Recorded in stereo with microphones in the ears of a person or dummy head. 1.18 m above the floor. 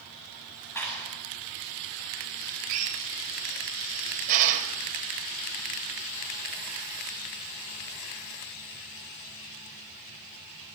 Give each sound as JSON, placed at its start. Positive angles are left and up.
{"t": 0.8, "sound": "a clap", "side_deg": 15, "distance_m": 9.5}
{"t": 2.7, "sound": "a drill", "side_deg": -45, "distance_m": 4.0}